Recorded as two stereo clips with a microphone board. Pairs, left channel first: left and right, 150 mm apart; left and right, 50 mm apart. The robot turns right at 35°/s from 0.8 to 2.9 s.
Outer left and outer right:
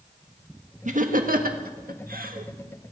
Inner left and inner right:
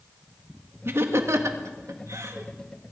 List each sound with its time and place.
0.8 s laughter: 55° right (ahead or behind), 1.5 m; by 2.5 s 65° right (ahead or behind), 1.5 m